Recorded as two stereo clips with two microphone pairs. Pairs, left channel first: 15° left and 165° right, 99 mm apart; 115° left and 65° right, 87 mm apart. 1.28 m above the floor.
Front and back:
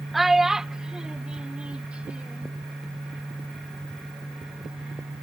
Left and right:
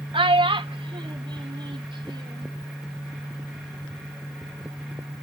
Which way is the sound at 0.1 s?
80° right.